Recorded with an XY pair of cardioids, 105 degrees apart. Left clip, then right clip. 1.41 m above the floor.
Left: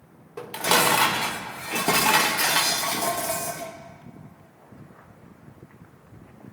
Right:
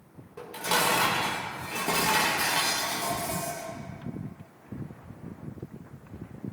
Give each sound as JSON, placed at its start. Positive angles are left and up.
{"t": 0.4, "sound": "dishes clattering", "azimuth_deg": 60, "distance_m": 1.2}